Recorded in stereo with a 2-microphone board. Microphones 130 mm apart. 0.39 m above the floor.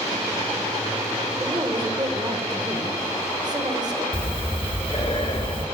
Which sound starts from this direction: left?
Breathing, at 4.1 s.